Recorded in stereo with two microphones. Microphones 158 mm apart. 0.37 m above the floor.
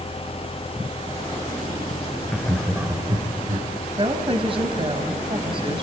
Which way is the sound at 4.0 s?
35° right (ahead or behind).